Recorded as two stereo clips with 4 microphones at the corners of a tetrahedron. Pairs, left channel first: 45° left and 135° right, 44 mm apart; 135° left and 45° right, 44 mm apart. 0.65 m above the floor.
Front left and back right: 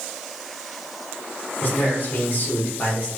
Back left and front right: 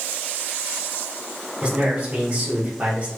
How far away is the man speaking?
About 1.4 m.